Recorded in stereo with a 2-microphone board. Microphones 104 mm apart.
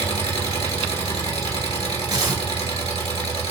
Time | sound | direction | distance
0.0 | an engine running | 75° left (ahead or behind) | 1.4 m
2.1 | tearing paper | 45° right (ahead or behind) | 1.6 m